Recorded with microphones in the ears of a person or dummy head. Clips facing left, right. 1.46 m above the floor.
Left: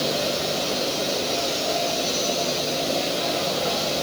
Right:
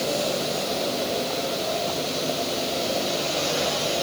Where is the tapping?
No tapping in this recording.